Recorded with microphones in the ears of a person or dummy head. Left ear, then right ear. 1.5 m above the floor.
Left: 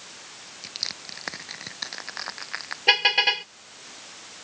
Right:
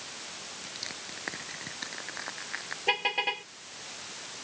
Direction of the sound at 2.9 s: 60° left (ahead or behind).